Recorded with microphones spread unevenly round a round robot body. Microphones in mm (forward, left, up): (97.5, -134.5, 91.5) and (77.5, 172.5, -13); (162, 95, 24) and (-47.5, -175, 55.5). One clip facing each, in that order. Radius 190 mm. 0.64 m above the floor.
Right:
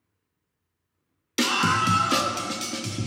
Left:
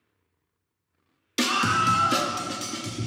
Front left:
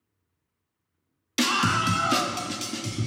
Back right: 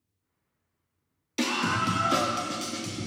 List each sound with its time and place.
1.4 s a scream: 20° left, 0.8 m; by 3.1 s 10° right, 1.5 m